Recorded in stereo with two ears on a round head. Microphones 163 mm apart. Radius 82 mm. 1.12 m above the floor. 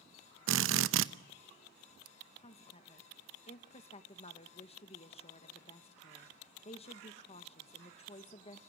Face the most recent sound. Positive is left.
turn(degrees=35)  # may be behind; listen again after turning